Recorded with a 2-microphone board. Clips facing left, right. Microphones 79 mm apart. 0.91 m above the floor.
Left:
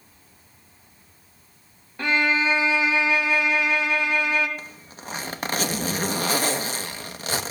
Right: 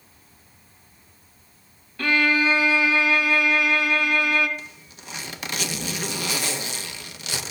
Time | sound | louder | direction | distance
2.0 | a violin | right 1 dB | 25° left (ahead or behind) | 1.6 m
4.6 | a zipper | left 2 dB | 40° left (ahead or behind) | 0.7 m